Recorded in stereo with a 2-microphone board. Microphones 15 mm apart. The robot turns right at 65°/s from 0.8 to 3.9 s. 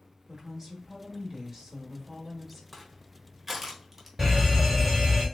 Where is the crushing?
Centre (ahead or behind), 1.1 m; by 4.1 s 20° right (ahead or behind), 1.1 m.